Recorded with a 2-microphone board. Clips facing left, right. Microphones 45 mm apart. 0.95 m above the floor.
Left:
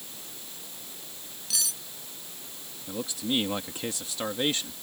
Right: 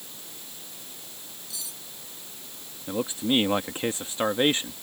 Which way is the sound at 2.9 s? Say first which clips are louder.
Right 5 dB; 35° right (ahead or behind).